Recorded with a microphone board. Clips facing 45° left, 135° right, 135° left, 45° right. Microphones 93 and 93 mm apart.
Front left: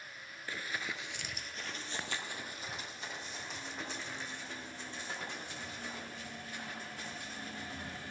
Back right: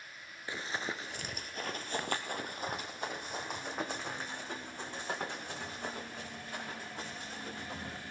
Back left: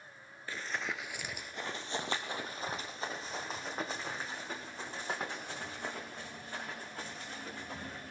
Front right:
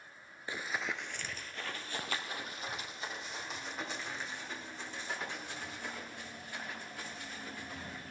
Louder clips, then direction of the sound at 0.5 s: Back right 3 dB, front right 1 dB; 90° right.